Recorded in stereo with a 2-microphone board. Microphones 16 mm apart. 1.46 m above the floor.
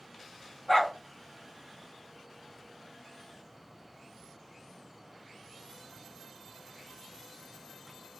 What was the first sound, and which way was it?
A dog barking, 35° left (ahead or behind).